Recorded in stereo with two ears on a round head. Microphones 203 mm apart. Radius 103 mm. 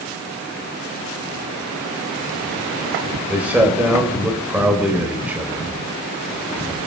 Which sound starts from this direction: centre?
A man speaking, at 3.3 s.